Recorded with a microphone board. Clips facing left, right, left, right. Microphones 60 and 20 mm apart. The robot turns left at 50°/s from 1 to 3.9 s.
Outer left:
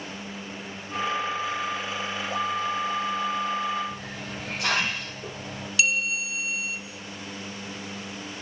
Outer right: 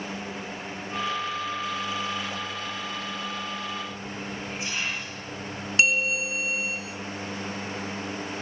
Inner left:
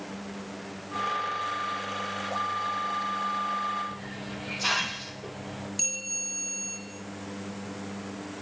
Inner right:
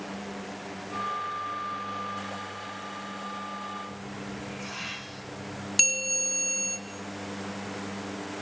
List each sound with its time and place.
3.9 s a hiss: 80° left, 5.5 m
5.8 s a bell: 35° right (ahead or behind), 4.5 m